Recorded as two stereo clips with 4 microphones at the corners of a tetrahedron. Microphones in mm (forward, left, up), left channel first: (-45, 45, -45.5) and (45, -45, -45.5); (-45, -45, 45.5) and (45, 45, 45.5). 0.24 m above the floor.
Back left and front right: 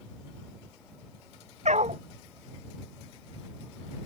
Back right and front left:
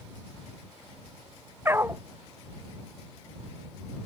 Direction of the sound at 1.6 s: 25° right.